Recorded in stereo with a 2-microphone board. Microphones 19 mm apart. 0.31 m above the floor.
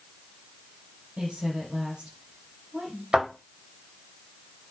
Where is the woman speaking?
65° right (ahead or behind), 7.5 m.